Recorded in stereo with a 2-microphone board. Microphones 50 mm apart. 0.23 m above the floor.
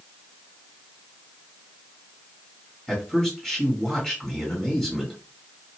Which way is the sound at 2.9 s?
10° left (ahead or behind).